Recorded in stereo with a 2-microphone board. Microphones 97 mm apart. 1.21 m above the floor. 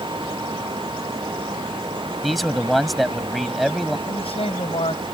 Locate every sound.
2.2 s a man speaking: centre (ahead or behind)
4.1 s a man speaking: 80° left